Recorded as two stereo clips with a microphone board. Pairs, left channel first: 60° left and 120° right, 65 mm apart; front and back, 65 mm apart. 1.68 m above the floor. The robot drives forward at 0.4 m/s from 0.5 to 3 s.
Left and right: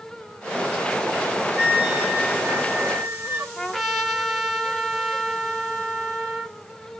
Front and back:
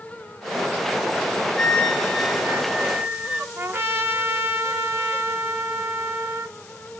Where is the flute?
70° right, 1.2 m; by 3.5 s 125° right, 1.2 m.